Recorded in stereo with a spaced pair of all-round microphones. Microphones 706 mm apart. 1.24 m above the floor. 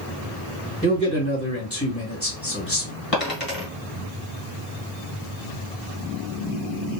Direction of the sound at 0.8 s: 20° left (ahead or behind).